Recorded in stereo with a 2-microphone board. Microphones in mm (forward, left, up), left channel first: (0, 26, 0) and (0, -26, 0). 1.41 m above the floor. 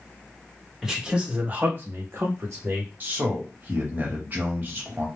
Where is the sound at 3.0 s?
35° right (ahead or behind), 1.1 m.